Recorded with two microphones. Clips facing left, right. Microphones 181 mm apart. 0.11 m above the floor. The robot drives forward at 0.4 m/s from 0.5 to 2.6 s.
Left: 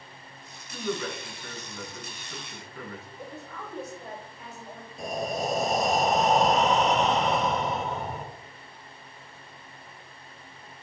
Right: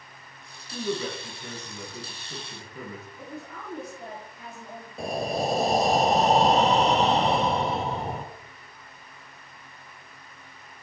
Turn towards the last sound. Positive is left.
turn(degrees=-35)  # may be behind; listen again after turning